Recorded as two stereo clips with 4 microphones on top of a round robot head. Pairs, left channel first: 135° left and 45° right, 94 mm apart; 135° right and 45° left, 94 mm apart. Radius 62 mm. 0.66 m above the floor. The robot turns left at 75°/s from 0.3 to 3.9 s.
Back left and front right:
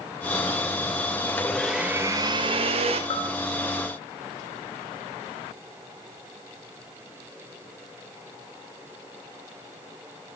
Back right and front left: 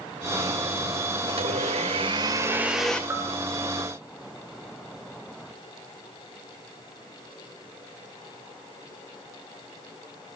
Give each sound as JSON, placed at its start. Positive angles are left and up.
{"t": 1.3, "sound": "a blender", "azimuth_deg": 75, "distance_m": 2.5}
{"t": 3.1, "sound": "a bell", "azimuth_deg": 110, "distance_m": 3.0}